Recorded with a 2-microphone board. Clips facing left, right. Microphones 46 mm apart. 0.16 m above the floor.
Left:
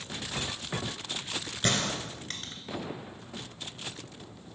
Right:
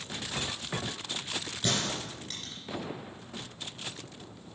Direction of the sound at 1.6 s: 50° left (ahead or behind).